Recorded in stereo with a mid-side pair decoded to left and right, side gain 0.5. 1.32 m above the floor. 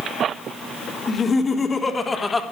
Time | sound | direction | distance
1.1 | laughter | 35° left | 3.5 m